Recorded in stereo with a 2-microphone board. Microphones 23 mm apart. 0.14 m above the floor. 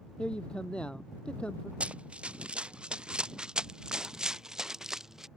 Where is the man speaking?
50° left (ahead or behind).